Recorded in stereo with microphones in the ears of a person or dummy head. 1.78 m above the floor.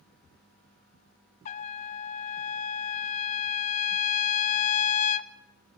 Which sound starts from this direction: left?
A trumpet, at 1.4 s.